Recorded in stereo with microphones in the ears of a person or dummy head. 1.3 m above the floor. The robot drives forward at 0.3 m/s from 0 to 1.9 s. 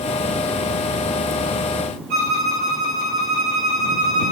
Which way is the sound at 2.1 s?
45° right (ahead or behind).